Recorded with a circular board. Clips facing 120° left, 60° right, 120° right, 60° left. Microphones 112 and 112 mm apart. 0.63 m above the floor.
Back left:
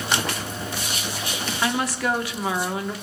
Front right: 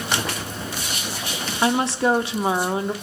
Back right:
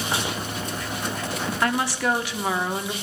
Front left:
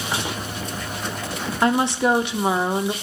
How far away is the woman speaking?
About 1.0 m.